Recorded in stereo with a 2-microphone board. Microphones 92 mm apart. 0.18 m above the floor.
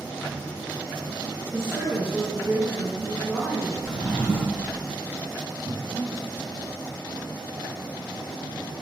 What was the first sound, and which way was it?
A woman speaking, 15° right (ahead or behind).